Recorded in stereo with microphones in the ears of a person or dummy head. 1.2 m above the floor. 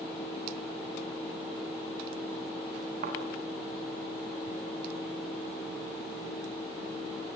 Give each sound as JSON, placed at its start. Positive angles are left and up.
{"t": 3.0, "sound": "a thud", "side_deg": -45, "distance_m": 5.5}